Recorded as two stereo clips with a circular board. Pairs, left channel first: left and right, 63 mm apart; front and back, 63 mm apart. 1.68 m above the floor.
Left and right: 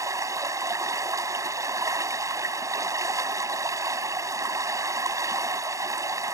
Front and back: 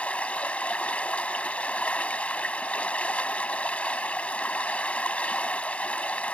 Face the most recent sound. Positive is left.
turn(degrees=-70)